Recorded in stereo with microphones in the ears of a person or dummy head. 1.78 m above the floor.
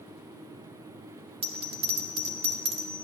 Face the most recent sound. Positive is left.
turn(degrees=-35)  # may be behind; listen again after turning